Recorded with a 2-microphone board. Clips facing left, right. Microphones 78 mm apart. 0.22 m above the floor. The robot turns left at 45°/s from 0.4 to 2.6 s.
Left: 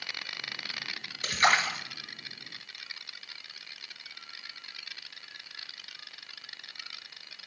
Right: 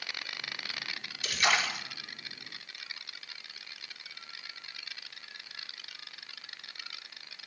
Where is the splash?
40° left (ahead or behind), 1.2 m; by 1.8 s 25° left (ahead or behind), 1.2 m.